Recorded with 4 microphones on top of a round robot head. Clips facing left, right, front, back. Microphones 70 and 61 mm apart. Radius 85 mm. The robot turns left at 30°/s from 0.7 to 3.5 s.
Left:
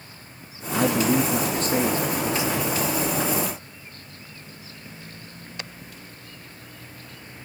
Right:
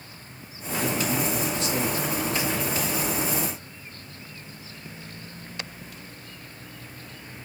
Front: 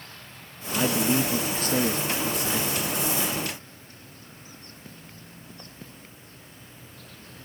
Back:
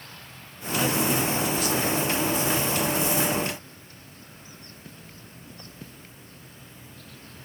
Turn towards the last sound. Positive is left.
turn(degrees=-10)